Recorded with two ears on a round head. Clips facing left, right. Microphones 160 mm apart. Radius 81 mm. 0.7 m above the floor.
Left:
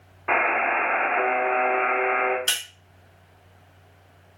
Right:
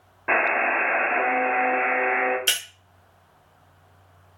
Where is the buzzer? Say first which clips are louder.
Even; 15° right (ahead or behind), 1.0 m.